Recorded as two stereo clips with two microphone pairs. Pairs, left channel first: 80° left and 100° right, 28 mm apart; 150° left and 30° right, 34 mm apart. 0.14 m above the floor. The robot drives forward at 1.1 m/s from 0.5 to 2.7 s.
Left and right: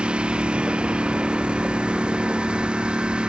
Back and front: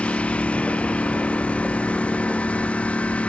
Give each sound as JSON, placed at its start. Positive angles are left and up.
{"t": 0.0, "sound": "a lawn mower", "azimuth_deg": -155}